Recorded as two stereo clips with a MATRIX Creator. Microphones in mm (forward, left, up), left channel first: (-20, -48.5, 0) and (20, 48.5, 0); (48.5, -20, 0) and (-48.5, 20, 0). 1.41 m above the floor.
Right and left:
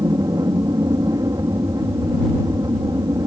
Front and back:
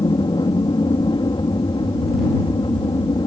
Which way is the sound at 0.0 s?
15° left.